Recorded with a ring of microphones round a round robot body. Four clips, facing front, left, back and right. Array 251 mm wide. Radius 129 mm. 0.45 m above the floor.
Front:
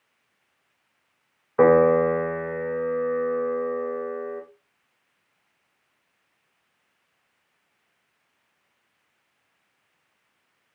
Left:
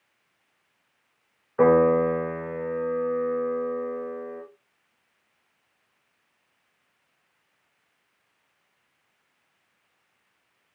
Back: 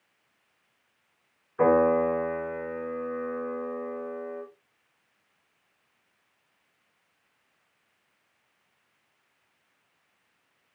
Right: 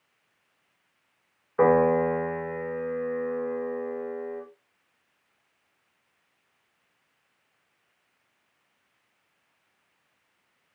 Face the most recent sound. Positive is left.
turn(degrees=-5)